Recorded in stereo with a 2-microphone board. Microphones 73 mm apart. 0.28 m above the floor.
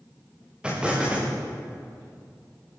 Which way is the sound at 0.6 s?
15° right (ahead or behind).